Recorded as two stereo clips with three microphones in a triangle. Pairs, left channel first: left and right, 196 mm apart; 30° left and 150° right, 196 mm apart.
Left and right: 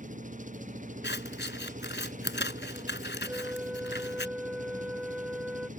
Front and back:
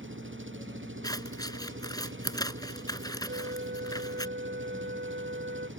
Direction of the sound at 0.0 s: 140° right.